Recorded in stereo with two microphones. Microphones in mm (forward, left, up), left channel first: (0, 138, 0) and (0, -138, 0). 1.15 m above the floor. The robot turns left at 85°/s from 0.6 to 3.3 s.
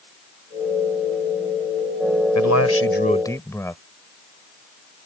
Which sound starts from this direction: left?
A man speaking, at 2.4 s.